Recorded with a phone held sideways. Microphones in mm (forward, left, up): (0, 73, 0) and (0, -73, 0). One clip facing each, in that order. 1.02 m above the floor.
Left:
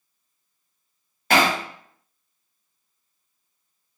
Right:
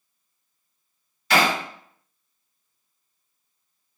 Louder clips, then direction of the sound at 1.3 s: Left 1 dB; 50° left (ahead or behind).